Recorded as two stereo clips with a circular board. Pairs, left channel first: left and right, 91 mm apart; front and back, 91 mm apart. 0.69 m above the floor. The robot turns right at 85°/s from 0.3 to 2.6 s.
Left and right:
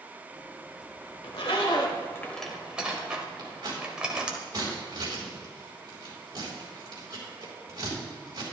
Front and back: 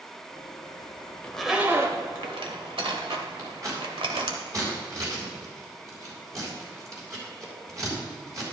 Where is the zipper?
75° left, 1.4 m; by 4.4 s 170° right, 1.4 m.